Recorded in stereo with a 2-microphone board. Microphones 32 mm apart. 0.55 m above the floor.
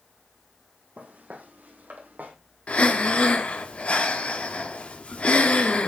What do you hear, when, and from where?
1.0 s footsteps: 55° right (ahead or behind), 1.6 m; by 2.3 s 75° right (ahead or behind), 1.7 m
2.7 s breathing: 40° left (ahead or behind), 0.7 m